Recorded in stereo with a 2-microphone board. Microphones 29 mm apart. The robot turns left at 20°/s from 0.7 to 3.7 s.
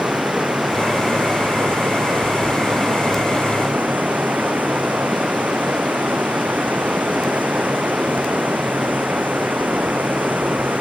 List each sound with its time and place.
0.0 s running water: 50° right; by 10.8 s 110° right